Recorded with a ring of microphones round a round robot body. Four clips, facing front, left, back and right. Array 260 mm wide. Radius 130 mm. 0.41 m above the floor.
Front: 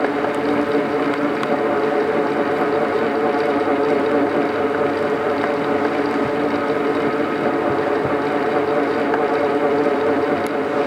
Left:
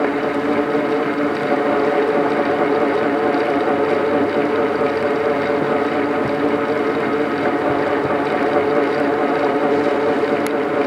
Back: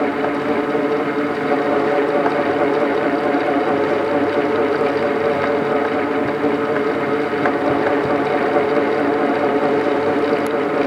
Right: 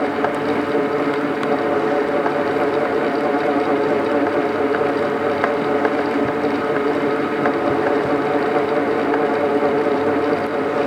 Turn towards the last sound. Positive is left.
No sound to turn to.